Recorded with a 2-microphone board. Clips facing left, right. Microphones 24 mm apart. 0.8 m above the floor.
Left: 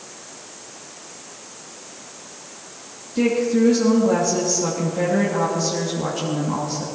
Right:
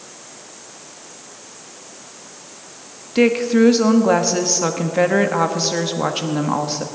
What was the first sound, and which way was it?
A woman speaking, 60° right (ahead or behind).